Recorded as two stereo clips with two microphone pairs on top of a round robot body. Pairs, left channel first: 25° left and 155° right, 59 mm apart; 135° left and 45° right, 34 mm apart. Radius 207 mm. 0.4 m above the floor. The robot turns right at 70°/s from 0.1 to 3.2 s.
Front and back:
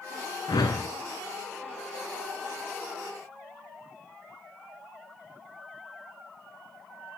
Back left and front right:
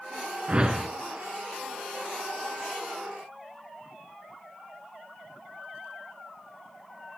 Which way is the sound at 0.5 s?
10° left.